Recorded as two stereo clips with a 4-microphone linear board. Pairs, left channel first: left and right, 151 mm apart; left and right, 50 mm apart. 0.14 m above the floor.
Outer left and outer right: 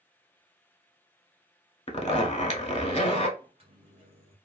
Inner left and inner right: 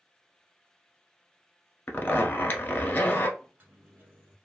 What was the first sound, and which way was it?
A zipper, 40° left (ahead or behind).